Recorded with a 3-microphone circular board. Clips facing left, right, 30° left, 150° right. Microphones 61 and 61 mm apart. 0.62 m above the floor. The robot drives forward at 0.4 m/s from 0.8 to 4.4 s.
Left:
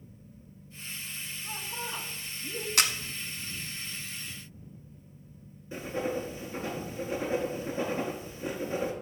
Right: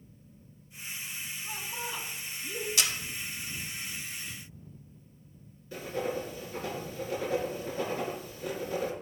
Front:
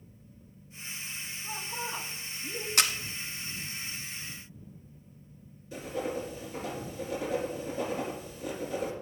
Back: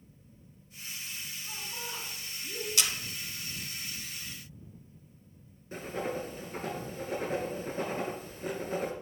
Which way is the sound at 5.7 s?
160° left.